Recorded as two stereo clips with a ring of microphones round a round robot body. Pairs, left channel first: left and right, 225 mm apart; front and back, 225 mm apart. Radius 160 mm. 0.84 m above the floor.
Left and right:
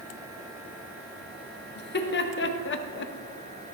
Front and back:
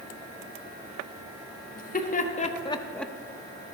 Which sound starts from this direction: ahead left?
Laughter, at 1.8 s.